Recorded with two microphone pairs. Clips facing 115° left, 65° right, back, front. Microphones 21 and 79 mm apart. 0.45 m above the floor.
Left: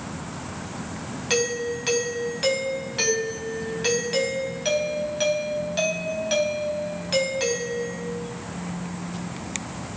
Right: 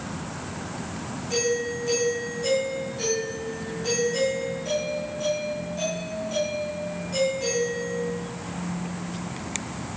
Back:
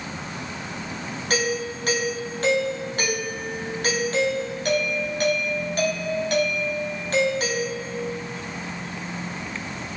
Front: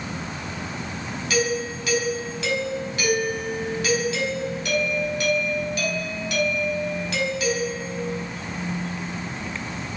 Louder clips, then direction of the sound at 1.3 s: Left 1 dB, front 1 dB; 135° left.